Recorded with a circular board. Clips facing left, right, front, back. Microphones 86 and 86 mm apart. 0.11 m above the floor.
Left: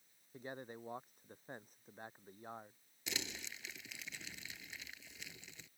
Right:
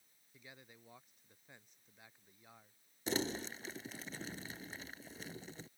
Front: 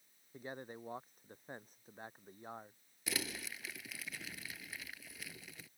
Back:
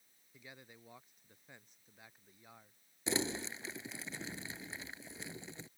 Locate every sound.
0.3 s a man speaking: 45° left
3.1 s crumpling: 125° right